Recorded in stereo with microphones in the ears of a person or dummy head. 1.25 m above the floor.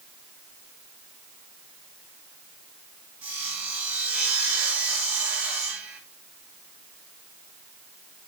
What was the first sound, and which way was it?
Sawing, 5° right (ahead or behind).